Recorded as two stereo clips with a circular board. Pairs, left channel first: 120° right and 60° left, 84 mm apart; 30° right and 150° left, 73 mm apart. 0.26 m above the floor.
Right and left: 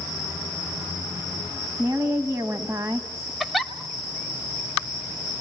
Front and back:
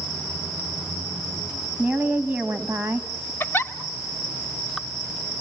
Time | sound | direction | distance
1.8 | a woman speaking | 90° left | 1.8 m
3.4 | a giggle | 20° right | 1.1 m